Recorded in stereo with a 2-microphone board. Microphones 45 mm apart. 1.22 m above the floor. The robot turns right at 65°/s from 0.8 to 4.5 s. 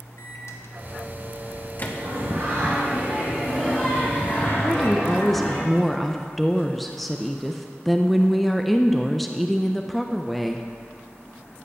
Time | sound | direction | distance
0.2 | a microwave | 70° left (ahead or behind) | 1.3 m
2.0 | singing | 95° right | 5.5 m
4.6 | a woman speaking | centre (ahead or behind) | 0.6 m